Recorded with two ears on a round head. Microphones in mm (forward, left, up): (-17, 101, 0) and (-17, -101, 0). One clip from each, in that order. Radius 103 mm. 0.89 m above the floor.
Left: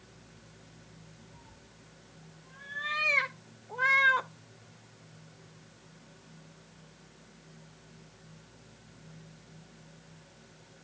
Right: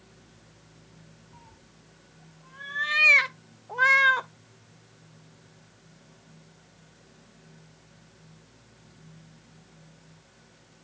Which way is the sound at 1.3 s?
35° right (ahead or behind).